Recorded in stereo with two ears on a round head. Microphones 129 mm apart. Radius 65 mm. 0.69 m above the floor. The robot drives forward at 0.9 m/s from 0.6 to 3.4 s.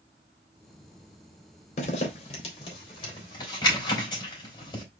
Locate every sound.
1.8 s a zipper: 50° left (ahead or behind), 2 m; by 4.8 s 30° left (ahead or behind), 3 m